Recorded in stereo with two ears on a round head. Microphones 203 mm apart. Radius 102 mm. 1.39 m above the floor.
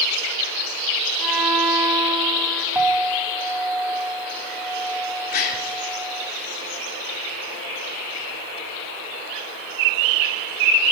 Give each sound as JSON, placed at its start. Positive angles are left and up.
{"t": 1.2, "sound": "a violin", "side_deg": 5, "distance_m": 6.5}
{"t": 2.8, "sound": "a clink", "side_deg": -10, "distance_m": 7.5}
{"t": 5.3, "sound": "a gasp", "side_deg": 45, "distance_m": 4.0}